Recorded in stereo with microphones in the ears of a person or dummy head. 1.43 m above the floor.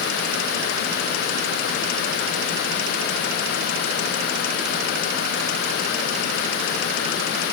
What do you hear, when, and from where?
Only background noise.